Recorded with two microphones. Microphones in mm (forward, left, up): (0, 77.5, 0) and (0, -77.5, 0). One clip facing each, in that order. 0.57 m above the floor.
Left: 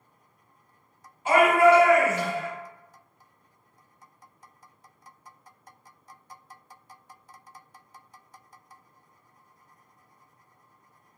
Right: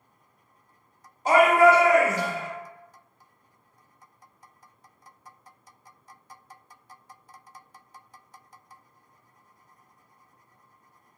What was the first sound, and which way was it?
A shout, 40° right (ahead or behind).